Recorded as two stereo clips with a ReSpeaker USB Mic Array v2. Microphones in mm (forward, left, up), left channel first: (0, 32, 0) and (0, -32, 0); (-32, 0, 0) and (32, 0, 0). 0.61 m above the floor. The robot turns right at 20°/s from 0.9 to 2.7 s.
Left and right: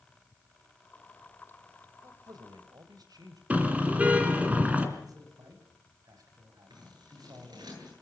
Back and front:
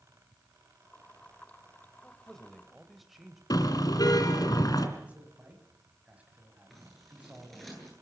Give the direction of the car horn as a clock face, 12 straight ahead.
5 o'clock.